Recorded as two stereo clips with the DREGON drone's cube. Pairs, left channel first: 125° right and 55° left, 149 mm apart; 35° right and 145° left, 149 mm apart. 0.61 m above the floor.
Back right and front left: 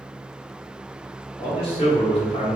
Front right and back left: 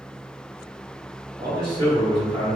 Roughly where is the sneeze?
I don't hear a sneeze.